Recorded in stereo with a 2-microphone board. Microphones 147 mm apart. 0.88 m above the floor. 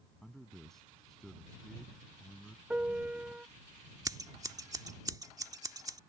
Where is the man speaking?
5° left (ahead or behind).